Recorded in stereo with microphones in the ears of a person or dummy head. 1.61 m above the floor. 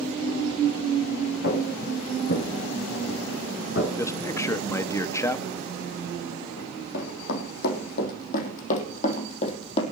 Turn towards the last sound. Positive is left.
turn(degrees=40)  # may be behind; listen again after turning